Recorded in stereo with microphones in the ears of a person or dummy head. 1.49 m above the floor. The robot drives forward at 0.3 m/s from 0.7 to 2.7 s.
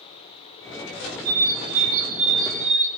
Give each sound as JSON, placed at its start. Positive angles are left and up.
{"t": 1.2, "sound": "a bird", "side_deg": -80, "distance_m": 1.4}